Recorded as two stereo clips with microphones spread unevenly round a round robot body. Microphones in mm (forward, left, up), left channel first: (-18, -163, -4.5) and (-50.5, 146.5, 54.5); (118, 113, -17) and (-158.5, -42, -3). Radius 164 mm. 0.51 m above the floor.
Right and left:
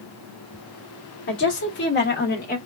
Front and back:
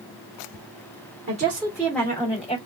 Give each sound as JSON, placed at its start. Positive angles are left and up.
{"t": 1.3, "sound": "a woman speaking", "azimuth_deg": -90, "distance_m": 1.3}